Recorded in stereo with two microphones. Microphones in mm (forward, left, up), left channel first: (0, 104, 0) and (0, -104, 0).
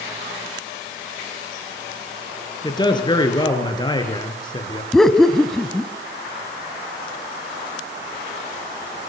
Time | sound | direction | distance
2.6 | a man speaking | 20° left (ahead or behind) | 4.5 m
4.9 | laughter | centre (ahead or behind) | 1.2 m